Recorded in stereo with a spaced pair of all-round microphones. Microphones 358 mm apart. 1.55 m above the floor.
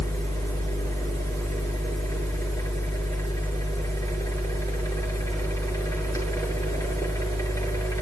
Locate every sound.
0.0 s a machine running: 10° left (ahead or behind), 7.5 m